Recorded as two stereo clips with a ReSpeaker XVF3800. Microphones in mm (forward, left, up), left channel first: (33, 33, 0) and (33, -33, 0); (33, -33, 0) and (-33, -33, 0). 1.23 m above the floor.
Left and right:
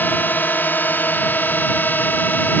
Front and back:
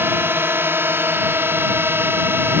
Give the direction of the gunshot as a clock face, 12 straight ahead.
I don't hear a gunshot.